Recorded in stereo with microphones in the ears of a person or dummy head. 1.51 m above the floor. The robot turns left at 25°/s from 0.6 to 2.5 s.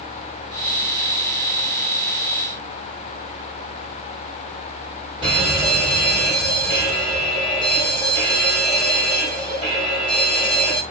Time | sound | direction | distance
5.2 | a fire alarm | 30° right (ahead or behind) | 4 m